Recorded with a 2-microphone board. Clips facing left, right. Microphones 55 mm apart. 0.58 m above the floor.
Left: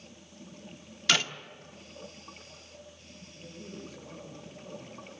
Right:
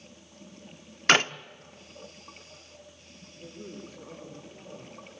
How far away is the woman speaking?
About 9.5 m.